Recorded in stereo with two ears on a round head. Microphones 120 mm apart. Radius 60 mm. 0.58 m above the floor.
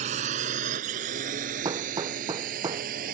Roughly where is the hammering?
Right.